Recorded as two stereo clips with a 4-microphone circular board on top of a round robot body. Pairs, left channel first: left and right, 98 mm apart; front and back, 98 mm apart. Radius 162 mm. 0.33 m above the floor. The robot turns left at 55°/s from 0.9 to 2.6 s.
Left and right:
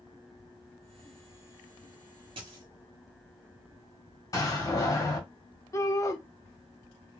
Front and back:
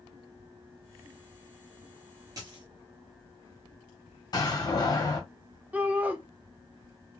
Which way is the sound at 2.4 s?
125° right.